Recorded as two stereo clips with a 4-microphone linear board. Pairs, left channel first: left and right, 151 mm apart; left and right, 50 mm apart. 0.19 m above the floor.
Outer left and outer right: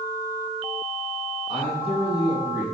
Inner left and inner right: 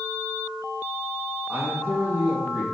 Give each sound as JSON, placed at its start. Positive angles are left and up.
{"t": 1.5, "sound": "a man speaking", "side_deg": -45, "distance_m": 1.6}